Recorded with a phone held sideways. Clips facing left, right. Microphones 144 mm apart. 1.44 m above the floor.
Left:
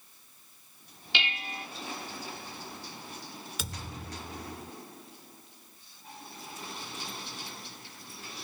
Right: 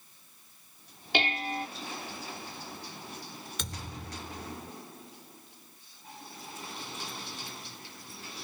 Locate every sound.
1.1 s dishes clattering: 50° right (ahead or behind)
3.6 s a thud: 5° left (ahead or behind)